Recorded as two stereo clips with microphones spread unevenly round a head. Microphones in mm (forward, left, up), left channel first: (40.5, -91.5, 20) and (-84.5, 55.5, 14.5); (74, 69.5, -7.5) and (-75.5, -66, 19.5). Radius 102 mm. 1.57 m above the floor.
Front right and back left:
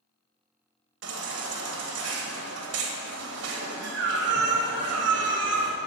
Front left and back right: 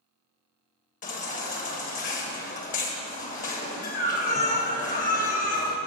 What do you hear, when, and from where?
1.0 s a baby crying: 95° left, 1.4 m